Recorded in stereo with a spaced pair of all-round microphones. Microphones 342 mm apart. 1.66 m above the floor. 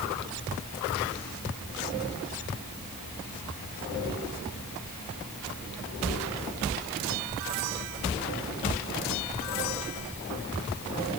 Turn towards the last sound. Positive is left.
No sound to turn to.